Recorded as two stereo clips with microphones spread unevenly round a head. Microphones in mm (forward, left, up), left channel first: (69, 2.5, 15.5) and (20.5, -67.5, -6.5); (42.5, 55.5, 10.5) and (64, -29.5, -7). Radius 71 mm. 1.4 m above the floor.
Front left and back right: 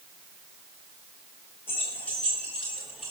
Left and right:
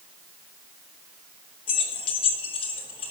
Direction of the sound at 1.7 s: 125° left.